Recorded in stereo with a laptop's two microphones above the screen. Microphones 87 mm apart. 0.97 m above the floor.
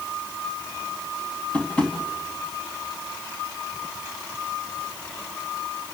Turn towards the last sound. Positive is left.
turn(degrees=10)  # may be behind; listen again after turning